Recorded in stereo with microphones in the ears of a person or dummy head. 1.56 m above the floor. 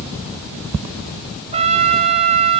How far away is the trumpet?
About 1.1 m.